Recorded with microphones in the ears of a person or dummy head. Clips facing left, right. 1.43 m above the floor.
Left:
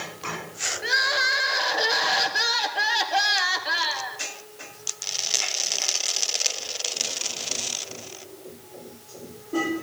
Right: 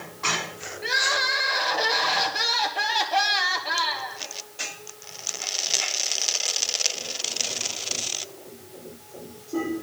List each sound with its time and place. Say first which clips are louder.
0.8 s crying: even; 5° left (ahead or behind), 1.1 m